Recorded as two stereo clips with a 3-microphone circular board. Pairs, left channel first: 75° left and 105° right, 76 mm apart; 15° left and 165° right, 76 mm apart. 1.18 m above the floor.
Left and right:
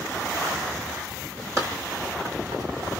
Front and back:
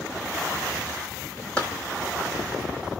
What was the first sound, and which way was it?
Running footsteps, 60° right.